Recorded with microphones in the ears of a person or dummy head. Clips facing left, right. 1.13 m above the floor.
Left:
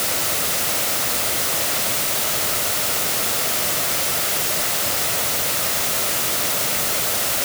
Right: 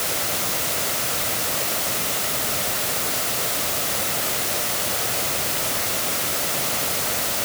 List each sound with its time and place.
Only background noise.